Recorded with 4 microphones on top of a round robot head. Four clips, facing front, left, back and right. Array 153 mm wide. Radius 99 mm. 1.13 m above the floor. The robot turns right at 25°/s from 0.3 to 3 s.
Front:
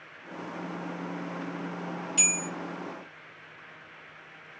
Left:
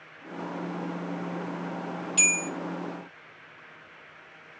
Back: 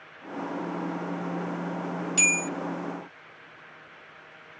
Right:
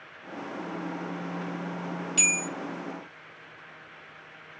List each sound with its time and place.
2.2 s a bell: 155° left, 1.2 m; by 2.5 s 160° left, 1.2 m